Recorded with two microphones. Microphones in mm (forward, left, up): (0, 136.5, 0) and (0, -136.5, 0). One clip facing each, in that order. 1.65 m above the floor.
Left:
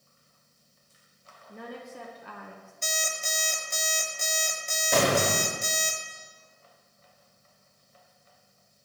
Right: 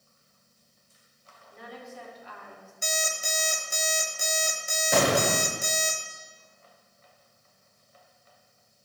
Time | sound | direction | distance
1.5 | a woman speaking | 60° left (ahead or behind) | 0.7 m
2.8 | an alarm clock | 5° right (ahead or behind) | 0.8 m
4.9 | an explosion | 5° right (ahead or behind) | 1.4 m